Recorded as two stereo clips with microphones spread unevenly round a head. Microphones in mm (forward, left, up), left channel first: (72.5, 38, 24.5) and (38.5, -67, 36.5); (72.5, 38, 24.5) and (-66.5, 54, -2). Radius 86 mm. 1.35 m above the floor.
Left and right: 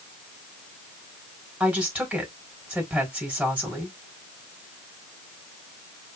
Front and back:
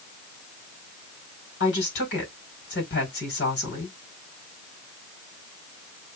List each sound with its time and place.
1.6 s a woman speaking: 30° right, 4.5 m